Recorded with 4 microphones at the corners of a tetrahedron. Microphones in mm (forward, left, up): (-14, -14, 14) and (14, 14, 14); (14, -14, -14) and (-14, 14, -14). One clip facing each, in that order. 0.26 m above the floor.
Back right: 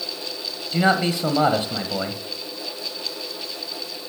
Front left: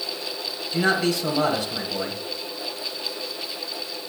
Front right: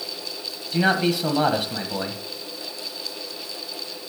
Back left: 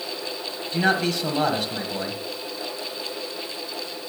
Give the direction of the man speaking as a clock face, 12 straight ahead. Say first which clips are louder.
Back right 2 dB, front right 1 dB; 4 o'clock.